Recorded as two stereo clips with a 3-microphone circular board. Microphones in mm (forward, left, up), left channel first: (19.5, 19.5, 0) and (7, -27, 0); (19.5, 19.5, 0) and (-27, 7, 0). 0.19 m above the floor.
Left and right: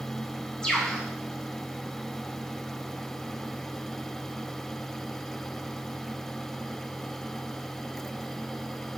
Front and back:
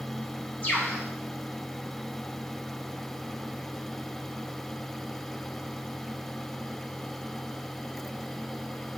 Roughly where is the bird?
Ahead.